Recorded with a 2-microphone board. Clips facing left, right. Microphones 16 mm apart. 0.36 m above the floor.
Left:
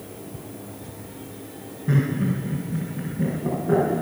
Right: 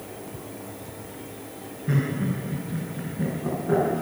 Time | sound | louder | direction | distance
1.9 | laughter | left 3 dB | centre (ahead or behind) | 4.5 m